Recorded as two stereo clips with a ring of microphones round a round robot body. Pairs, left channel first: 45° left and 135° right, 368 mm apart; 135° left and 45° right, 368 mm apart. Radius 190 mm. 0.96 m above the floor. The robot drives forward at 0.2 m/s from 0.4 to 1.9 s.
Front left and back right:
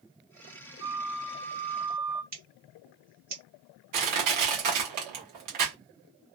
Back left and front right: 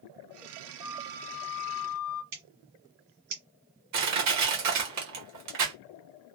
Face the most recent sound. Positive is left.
turn(degrees=-95)